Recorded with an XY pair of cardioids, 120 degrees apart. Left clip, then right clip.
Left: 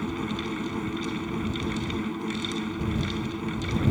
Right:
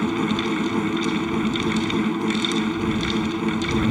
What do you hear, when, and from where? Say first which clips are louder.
0.0 s a fan: right 8 dB; 45° right